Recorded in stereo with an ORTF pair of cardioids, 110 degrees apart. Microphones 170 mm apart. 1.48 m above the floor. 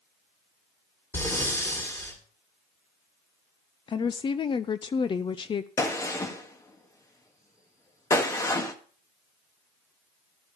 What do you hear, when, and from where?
1.1 s breathing: 15° left, 4 m
3.9 s a woman speaking: 30° left, 0.6 m
5.8 s a gunshot: 20° left, 1.7 m